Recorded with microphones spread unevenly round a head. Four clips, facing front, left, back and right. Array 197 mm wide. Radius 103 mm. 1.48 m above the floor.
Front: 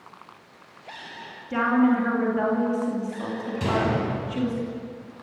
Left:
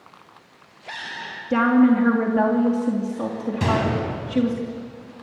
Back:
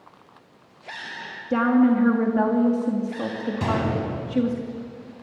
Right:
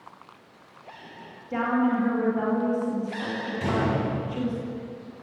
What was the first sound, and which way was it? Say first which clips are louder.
A woman speaking: left 8 dB, back 2 dB; 115° left.